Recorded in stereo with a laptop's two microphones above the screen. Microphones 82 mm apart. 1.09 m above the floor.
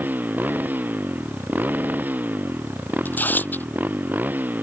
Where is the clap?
No clap in this recording.